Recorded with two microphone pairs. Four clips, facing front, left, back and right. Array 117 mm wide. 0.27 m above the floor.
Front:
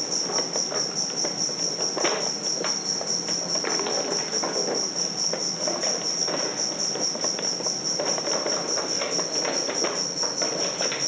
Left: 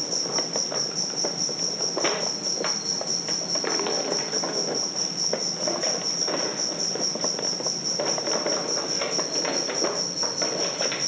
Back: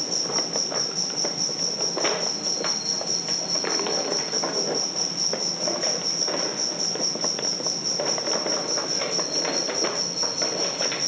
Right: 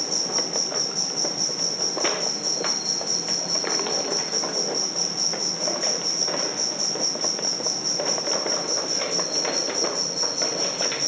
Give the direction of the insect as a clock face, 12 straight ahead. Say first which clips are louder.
Right 1 dB, even; 5 o'clock.